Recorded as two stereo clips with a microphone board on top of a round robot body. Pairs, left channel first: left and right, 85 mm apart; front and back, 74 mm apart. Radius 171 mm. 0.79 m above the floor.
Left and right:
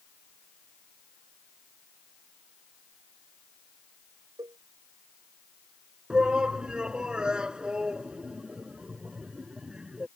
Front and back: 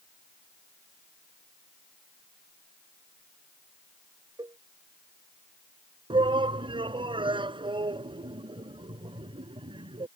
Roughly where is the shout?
Behind.